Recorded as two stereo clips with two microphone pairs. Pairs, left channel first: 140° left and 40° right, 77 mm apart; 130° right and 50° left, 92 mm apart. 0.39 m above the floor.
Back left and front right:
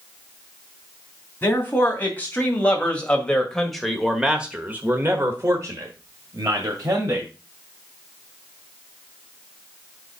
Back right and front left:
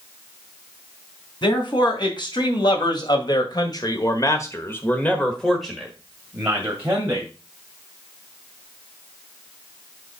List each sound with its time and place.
1.4 s a man speaking: 160° right, 3 m; by 7.3 s 15° right, 2 m